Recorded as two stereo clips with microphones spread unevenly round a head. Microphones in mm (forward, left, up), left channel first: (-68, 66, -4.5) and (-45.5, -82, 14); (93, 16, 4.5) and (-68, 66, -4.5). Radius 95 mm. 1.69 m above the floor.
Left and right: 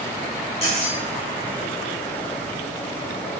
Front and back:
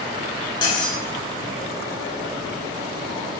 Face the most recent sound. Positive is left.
turn(degrees=40)